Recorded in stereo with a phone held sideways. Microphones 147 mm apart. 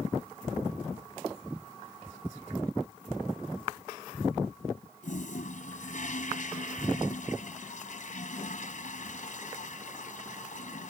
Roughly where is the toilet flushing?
Left.